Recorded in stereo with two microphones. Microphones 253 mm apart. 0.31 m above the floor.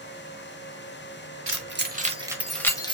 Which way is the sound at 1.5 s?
55° right (ahead or behind).